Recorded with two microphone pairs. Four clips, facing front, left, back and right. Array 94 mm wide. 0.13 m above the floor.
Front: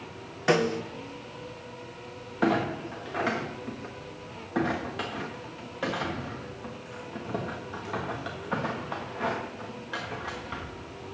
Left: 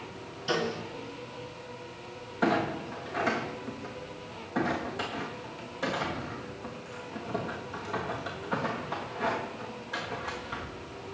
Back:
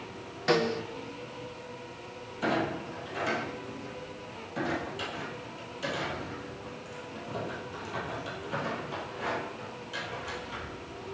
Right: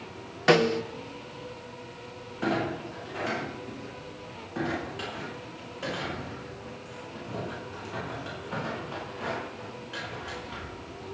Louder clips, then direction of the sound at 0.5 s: Right 9 dB, front 2 dB; 75° right.